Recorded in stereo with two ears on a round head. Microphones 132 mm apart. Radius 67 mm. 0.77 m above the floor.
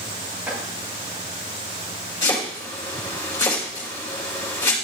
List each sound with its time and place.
0.5 s chopping: 10° right (ahead or behind), 4.5 m
2.2 s chopping: 20° left (ahead or behind), 4.5 m